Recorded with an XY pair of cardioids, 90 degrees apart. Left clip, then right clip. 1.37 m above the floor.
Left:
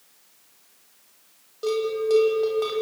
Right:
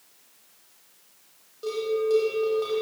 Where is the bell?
50° left, 9.5 m.